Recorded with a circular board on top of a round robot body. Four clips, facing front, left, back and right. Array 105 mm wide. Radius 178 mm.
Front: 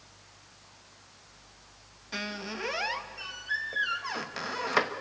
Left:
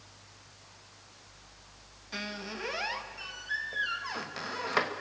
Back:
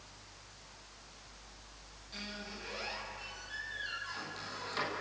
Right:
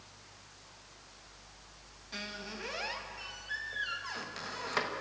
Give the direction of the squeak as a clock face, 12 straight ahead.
11 o'clock.